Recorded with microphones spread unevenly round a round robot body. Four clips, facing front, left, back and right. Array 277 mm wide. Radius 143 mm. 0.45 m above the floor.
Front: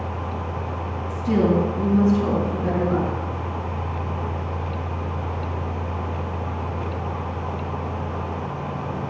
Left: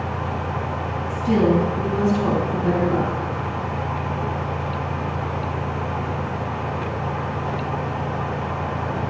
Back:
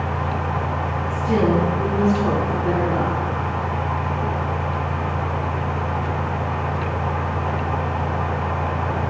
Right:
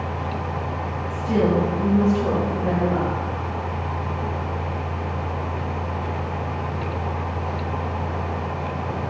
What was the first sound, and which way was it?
A woman speaking, 50° left.